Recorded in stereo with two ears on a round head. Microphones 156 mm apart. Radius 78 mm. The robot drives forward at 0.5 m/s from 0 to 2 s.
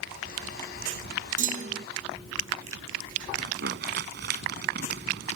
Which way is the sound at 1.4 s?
50° right (ahead or behind).